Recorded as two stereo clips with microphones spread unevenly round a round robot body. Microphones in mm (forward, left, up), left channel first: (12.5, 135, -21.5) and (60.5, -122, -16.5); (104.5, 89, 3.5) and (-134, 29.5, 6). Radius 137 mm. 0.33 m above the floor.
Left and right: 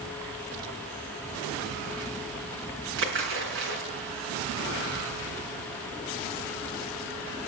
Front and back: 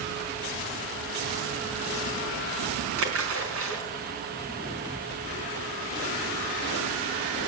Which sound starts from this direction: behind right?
A splash, at 3.0 s.